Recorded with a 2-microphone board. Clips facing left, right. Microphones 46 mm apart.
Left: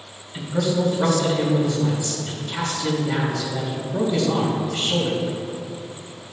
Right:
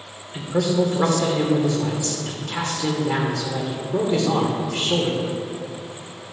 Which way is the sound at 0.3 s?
70° right (ahead or behind).